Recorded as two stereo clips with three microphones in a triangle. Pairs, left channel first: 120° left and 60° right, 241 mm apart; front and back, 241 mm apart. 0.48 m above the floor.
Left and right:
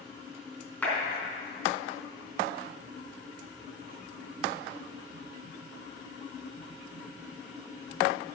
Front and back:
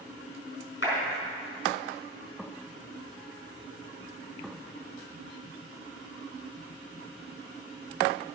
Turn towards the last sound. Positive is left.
turn(degrees=35)